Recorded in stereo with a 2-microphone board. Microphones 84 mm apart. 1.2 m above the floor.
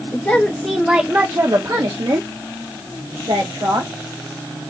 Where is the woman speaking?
20° left (ahead or behind), 0.9 m; by 3.9 s 70° right (ahead or behind), 1.9 m.